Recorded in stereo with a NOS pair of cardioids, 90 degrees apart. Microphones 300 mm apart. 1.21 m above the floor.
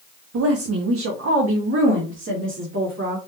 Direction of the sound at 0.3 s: 50° right.